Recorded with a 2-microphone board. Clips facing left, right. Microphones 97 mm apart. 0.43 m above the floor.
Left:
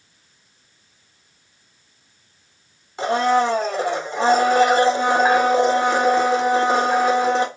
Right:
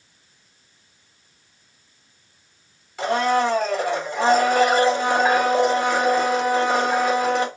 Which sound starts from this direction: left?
A blender, at 3.0 s.